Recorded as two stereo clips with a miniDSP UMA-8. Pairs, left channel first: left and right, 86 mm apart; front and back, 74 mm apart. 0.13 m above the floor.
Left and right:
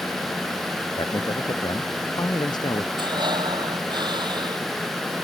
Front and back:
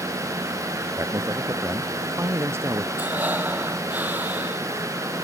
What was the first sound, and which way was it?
A man speaking, 125° left.